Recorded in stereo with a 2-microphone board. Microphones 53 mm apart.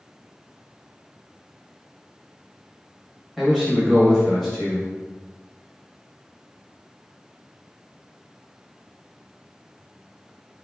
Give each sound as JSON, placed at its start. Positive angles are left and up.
{"t": 3.4, "sound": "a man speaking", "side_deg": -5, "distance_m": 1.0}